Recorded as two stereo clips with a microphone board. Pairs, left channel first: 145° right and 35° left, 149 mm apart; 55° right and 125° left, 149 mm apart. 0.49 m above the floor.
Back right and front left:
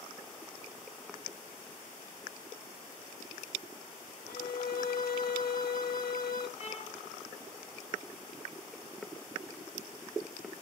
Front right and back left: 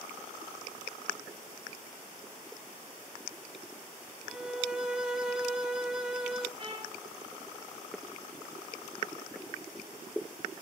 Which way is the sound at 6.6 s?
175° left.